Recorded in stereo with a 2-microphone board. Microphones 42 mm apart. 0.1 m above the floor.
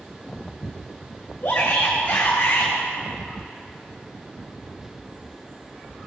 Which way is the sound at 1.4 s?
30° left (ahead or behind).